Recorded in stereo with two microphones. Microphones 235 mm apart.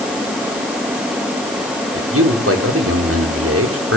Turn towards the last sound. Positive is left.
turn(degrees=-70)  # may be behind; listen again after turning